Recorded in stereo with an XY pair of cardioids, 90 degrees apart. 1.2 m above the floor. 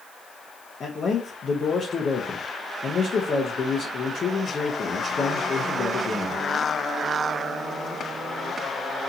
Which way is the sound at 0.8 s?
45° left.